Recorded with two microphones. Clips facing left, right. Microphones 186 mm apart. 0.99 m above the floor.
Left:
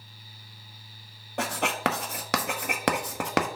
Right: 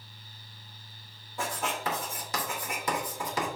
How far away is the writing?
About 1.0 m.